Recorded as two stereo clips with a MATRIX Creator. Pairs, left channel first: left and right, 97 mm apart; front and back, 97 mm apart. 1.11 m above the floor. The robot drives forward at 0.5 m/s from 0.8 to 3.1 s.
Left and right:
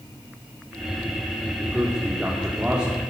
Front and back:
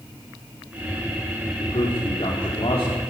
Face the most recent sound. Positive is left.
turn(degrees=-10)